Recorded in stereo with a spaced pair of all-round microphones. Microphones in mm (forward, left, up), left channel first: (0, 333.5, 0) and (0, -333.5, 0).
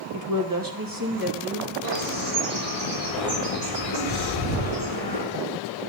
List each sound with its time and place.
0.1 s a woman speaking: 25° right (ahead or behind), 1.6 m; by 1.7 s 35° right (ahead or behind), 3.5 m
1.8 s a bird: 70° left (ahead or behind), 5.5 m